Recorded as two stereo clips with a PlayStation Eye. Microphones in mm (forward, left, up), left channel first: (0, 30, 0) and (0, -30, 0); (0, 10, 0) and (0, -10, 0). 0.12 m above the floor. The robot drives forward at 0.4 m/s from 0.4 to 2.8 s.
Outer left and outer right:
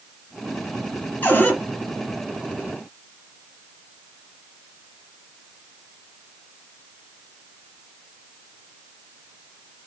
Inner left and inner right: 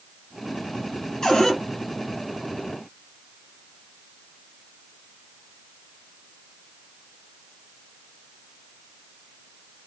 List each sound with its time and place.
1.2 s a cupboard door: 30° left (ahead or behind), 1.8 m